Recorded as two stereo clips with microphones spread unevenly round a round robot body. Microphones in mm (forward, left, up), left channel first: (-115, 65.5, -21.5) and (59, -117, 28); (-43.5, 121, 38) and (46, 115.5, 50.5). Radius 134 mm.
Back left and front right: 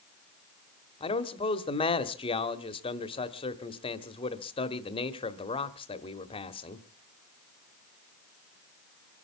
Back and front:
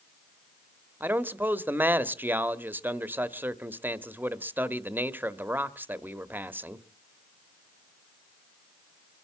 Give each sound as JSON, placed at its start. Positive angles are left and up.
{"t": 1.0, "sound": "a man speaking", "azimuth_deg": 70, "distance_m": 1.2}